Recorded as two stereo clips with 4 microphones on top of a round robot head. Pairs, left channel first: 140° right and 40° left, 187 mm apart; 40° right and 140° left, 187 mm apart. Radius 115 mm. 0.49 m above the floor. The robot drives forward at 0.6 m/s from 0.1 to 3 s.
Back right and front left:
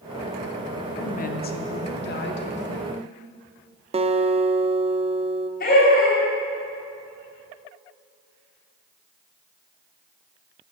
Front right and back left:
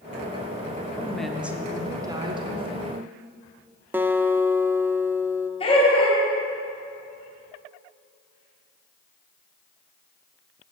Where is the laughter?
100° right, 2.5 m.